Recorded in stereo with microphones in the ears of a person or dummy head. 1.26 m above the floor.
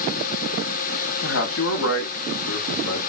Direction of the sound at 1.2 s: 70° left (ahead or behind).